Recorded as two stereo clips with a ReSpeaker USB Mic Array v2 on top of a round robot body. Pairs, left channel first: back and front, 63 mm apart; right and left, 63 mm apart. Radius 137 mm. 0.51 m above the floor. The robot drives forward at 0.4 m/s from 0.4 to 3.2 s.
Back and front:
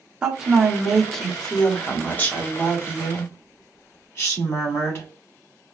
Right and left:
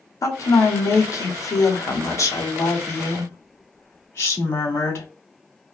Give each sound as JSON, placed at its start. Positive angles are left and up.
{"t": 0.2, "sound": "a woman speaking", "azimuth_deg": -75, "distance_m": 1.1}